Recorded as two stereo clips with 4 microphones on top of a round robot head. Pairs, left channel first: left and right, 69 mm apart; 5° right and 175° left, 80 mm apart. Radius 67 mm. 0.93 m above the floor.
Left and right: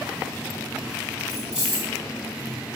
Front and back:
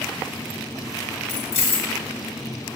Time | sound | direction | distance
1.3 | keys jangling | 10° right | 3 m